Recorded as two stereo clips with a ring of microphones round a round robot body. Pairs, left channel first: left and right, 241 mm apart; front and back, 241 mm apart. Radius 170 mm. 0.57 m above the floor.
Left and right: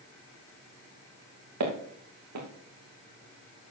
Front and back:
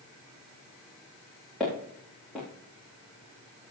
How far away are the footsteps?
About 3 m.